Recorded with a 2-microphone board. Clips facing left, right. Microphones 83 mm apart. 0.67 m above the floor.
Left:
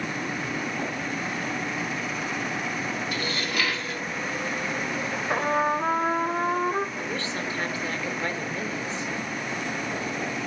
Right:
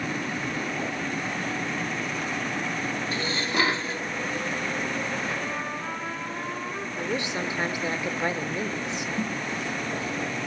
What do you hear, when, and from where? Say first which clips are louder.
3.1 s dishes clattering: right 2 dB; 30° right (ahead or behind), 0.7 m
5.3 s a trumpet: left 8 dB; 50° left (ahead or behind), 0.8 m
7.0 s a woman speaking: right 2 dB; 20° right (ahead or behind), 2 m
9.2 s a snare drum: right 3 dB; 30° right (ahead or behind), 7.5 m